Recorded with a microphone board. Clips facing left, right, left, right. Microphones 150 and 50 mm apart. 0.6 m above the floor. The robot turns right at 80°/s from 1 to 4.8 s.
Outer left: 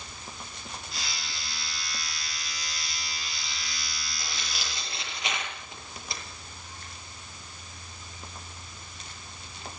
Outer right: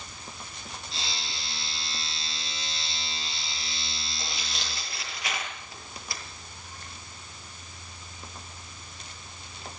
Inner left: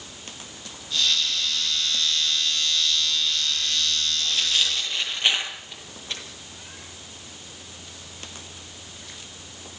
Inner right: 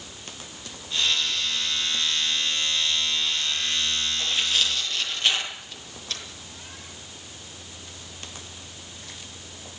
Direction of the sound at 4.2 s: 25° right (ahead or behind).